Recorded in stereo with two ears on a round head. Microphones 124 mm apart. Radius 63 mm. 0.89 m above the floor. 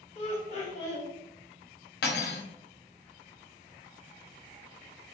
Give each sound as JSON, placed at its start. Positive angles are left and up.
{"t": 0.1, "sound": "laughter", "side_deg": 45, "distance_m": 1.6}
{"t": 2.0, "sound": "cutlery clinking", "side_deg": 80, "distance_m": 0.7}